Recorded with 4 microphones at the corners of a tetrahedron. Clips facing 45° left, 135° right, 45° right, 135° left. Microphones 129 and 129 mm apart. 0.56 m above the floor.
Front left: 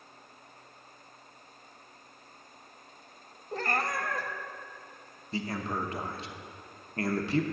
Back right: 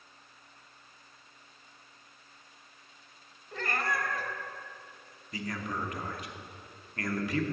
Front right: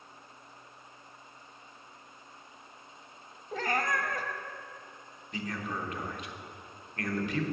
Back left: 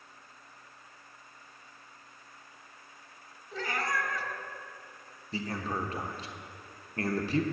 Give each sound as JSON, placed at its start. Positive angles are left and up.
{"t": 3.5, "sound": "a cat meowing", "azimuth_deg": -5, "distance_m": 0.8}
{"t": 5.3, "sound": "a man speaking", "azimuth_deg": 95, "distance_m": 0.9}